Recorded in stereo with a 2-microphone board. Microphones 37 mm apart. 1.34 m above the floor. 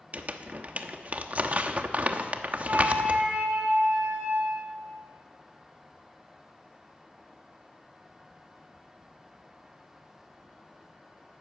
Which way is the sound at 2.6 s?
40° right (ahead or behind).